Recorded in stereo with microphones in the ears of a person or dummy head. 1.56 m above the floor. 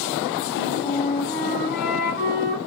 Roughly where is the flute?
Left.